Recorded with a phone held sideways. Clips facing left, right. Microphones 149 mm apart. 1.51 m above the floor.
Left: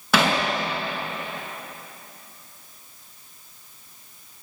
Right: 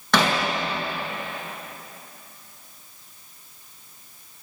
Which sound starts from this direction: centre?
Hammering, at 0.1 s.